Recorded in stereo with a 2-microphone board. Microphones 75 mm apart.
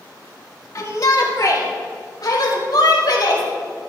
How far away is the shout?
About 2.5 m.